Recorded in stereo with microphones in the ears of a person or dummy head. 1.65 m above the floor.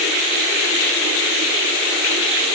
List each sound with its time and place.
Only background noise.